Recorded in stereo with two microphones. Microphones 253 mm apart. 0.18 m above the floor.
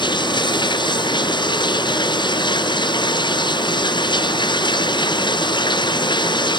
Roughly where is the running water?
Centre.